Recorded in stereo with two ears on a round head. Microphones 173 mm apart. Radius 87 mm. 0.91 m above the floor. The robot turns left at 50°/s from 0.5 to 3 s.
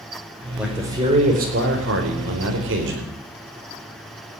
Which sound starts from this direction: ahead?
A man speaking, at 0.6 s.